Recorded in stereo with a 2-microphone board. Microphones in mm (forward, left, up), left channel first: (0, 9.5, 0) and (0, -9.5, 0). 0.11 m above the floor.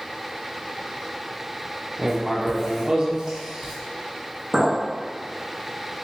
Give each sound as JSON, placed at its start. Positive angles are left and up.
{"t": 2.0, "sound": "writing", "side_deg": -35, "distance_m": 0.8}
{"t": 4.5, "sound": "a clink", "side_deg": 25, "distance_m": 1.7}